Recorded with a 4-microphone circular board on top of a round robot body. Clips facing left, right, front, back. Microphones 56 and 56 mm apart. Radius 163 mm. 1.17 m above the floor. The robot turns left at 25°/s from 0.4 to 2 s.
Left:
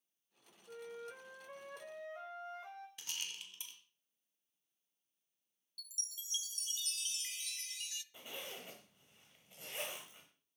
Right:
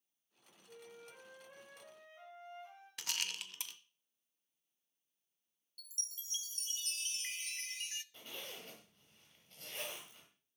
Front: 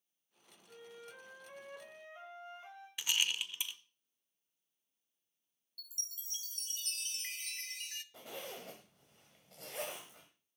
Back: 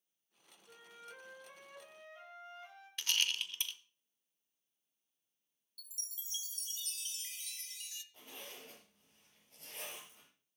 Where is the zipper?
15° left, 1.4 m.